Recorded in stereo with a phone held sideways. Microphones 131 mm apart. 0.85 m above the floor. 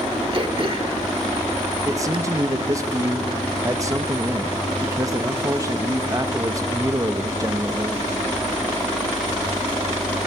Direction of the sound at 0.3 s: 40° right (ahead or behind).